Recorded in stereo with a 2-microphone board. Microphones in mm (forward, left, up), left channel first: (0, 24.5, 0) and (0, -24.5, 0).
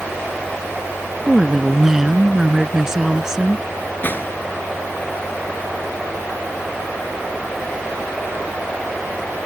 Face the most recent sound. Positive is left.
turn(degrees=40)  # may be behind; listen again after turning